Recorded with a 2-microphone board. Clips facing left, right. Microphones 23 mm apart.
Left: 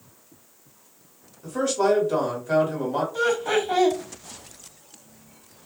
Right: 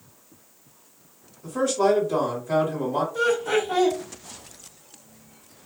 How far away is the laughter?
About 1.6 m.